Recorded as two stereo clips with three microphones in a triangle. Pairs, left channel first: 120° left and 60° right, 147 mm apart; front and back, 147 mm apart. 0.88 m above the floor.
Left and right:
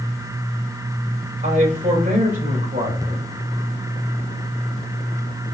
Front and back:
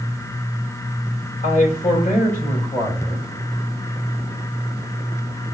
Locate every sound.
1.4 s a man speaking: 30° right, 4.5 m